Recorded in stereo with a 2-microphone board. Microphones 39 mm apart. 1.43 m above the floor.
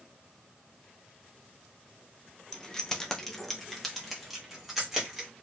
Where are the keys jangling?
15° left (ahead or behind), 0.5 m; by 5.3 s 5° right (ahead or behind), 1.4 m.